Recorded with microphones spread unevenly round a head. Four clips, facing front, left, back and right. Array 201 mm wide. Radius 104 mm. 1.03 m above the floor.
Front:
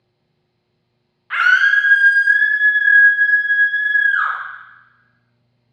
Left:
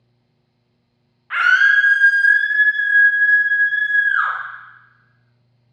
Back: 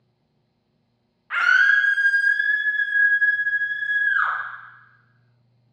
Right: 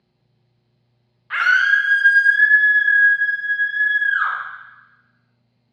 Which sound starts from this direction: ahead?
A scream, at 1.3 s.